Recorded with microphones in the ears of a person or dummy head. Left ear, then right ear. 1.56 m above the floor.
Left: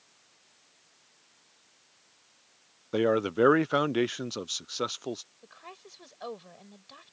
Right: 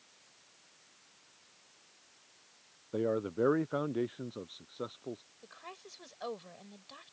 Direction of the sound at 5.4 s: Centre (ahead or behind).